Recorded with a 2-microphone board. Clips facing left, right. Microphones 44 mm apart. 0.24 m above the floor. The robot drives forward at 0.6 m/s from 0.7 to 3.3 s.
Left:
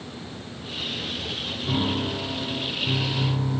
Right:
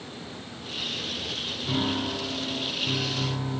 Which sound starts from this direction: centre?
A piano, at 1.6 s.